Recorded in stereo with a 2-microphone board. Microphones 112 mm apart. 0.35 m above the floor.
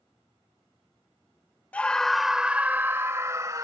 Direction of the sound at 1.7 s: 15° left (ahead or behind).